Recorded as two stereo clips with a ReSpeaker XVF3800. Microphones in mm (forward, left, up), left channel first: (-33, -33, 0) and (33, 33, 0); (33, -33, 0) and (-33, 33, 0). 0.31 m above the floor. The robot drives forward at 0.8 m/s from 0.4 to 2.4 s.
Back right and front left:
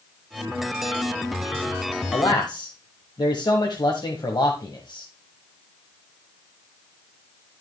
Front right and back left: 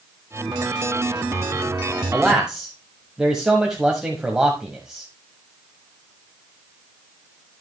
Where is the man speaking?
135° right, 1.3 m; by 5.1 s 145° right, 1.5 m.